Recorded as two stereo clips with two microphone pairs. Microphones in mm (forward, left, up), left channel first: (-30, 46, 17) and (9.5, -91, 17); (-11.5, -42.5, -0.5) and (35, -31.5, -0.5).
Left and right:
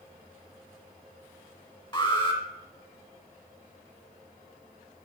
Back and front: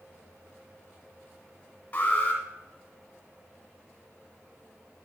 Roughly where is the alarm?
Behind left.